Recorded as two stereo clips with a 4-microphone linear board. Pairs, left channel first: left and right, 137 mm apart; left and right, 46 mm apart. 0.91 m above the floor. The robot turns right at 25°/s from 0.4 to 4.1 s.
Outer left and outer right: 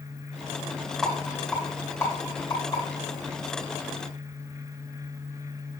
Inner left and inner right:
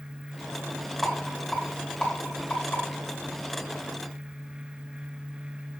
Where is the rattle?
5° right (ahead or behind), 3.5 m; by 2.8 s 40° left (ahead or behind), 3.5 m.